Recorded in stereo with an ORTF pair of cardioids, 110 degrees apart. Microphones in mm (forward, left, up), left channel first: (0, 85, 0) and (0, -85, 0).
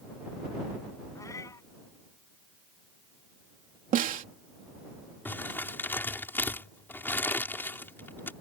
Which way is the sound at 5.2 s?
10° left.